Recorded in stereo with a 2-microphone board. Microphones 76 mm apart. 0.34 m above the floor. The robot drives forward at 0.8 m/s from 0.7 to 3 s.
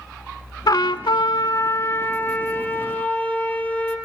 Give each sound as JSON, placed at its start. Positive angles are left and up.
{"t": 0.7, "sound": "a trumpet", "side_deg": 60, "distance_m": 0.6}